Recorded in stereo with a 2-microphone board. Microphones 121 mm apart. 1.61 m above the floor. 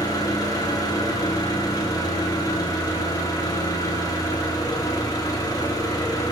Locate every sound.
0.0 s an engine running: 30° left (ahead or behind), 1.4 m